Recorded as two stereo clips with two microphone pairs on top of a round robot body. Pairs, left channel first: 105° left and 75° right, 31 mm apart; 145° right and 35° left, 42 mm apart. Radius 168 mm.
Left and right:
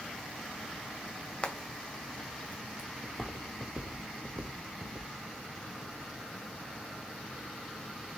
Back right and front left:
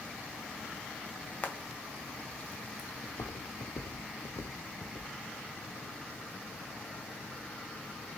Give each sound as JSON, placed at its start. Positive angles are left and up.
{"t": 1.4, "sound": "frying", "azimuth_deg": 165, "distance_m": 2.0}
{"t": 3.0, "sound": "footsteps", "azimuth_deg": -165, "distance_m": 1.5}